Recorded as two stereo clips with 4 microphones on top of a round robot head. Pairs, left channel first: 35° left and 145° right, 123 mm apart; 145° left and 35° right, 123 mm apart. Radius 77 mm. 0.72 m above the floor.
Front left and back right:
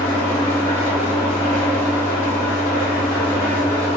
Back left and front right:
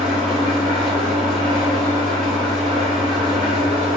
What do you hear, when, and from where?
0.0 s an engine running: 85° right, 1.8 m